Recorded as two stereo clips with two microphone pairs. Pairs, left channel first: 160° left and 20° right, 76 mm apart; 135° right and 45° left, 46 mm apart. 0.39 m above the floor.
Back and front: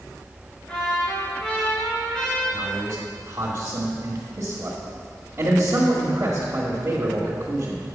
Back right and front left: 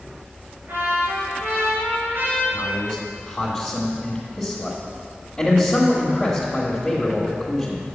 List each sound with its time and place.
0.7 s a trumpet: 80° left, 3.5 m
2.5 s a man speaking: 55° right, 1.5 m